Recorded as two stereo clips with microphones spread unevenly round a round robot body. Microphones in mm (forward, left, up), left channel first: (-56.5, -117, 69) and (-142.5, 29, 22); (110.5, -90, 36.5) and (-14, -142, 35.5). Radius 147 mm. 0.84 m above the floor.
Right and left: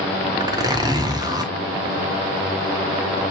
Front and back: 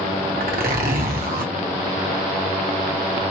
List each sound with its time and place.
0.4 s a zipper: 170° right, 1.0 m